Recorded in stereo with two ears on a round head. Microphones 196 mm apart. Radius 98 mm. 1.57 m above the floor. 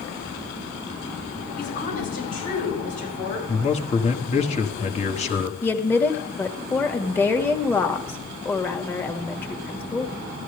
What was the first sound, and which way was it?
A woman speaking, 40° left (ahead or behind).